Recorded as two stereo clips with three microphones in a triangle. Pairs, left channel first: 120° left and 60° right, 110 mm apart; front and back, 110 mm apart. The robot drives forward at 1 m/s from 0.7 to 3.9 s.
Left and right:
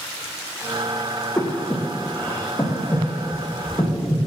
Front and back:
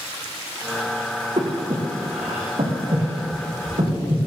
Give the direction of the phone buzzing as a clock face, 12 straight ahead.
No phone buzzing in this recording.